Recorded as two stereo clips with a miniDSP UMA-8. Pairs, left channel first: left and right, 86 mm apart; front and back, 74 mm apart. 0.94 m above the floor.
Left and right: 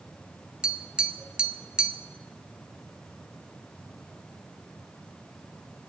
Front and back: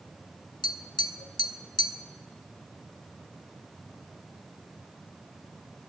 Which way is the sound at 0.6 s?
10° right.